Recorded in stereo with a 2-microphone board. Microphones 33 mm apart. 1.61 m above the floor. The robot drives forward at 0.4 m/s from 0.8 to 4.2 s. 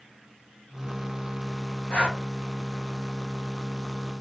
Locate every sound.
1.9 s breathing: 45° left (ahead or behind), 1.7 m